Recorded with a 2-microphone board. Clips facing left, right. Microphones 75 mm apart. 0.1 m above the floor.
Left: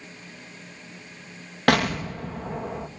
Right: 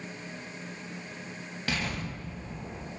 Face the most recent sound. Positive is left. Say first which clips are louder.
# left 12 dB
turn(degrees=65)  # may be behind; listen again after turning